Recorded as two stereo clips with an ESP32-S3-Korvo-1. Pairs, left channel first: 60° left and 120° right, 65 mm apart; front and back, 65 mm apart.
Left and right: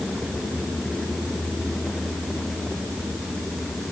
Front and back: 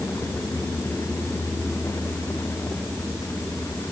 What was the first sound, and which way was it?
Only background noise.